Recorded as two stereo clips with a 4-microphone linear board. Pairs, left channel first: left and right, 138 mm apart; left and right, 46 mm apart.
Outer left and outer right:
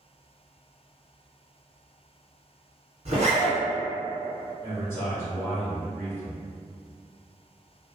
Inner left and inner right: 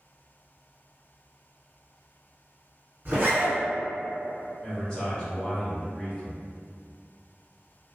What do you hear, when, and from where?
3.0 s a zipper: 50° right (ahead or behind), 1.7 m
4.6 s a man speaking: 15° left (ahead or behind), 1.0 m